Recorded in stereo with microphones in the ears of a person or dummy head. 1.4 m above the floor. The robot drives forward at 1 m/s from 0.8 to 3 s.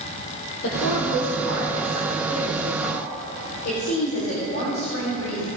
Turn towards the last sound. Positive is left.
turn(degrees=70)  # may be behind; listen again after turning